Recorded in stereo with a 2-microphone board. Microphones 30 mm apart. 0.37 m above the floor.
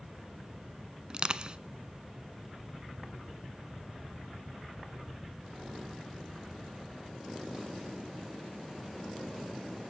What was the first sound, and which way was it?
Crushing, 30° right (ahead or behind).